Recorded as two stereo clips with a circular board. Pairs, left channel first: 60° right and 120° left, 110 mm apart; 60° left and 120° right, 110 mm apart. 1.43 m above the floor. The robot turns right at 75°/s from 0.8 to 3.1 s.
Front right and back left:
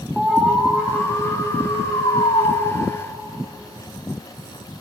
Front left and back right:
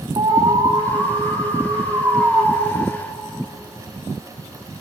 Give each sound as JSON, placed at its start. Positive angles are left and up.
{"t": 0.2, "sound": "an alarm", "azimuth_deg": -155, "distance_m": 3.5}